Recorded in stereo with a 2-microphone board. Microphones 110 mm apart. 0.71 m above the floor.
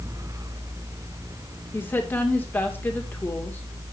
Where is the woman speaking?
20° left (ahead or behind), 2.5 m.